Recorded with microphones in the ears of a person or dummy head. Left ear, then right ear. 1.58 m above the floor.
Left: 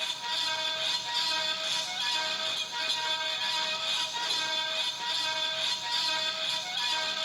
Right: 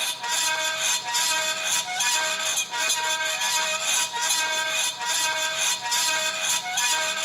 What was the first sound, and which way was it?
A fan, 25° right (ahead or behind).